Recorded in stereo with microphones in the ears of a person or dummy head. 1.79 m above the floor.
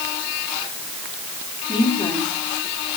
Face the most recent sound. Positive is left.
turn(degrees=35)  # may be behind; listen again after turning